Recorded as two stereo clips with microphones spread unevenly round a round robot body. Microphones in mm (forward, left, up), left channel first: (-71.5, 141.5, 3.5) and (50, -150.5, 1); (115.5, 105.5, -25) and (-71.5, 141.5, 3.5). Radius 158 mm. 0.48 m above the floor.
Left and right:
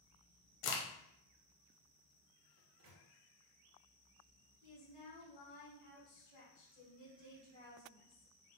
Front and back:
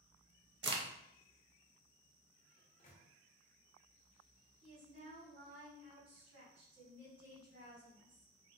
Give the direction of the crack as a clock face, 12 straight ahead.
7 o'clock.